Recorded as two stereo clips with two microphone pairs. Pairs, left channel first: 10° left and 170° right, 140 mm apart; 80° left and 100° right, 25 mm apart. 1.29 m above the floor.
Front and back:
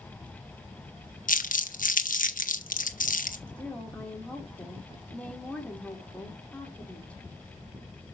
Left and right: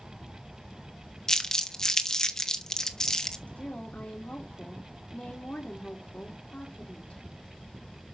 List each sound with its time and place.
1.3 s crumpling: 10° left, 1.2 m
3.5 s a woman speaking: 90° left, 3 m